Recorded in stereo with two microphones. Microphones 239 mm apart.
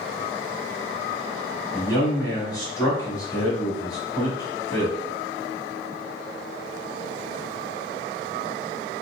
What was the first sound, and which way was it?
A man speaking, 15° left (ahead or behind).